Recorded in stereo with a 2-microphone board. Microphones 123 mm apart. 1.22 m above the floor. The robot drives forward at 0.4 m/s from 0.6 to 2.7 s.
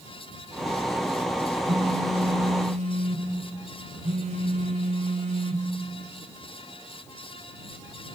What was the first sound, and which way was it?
A phone buzzing, 70° right (ahead or behind).